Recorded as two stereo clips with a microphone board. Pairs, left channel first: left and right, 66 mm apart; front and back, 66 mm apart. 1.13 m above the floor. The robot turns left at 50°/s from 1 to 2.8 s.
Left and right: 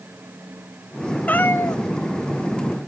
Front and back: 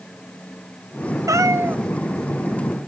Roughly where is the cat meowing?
Behind left.